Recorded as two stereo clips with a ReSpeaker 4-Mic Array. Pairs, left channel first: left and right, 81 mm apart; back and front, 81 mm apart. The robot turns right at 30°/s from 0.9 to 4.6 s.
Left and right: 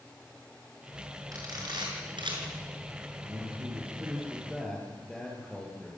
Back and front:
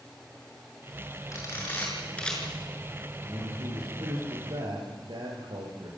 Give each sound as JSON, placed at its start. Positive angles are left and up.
{"t": 1.3, "sound": "a camera shutter", "azimuth_deg": -130, "distance_m": 6.5}
{"t": 3.2, "sound": "a man speaking", "azimuth_deg": -35, "distance_m": 9.0}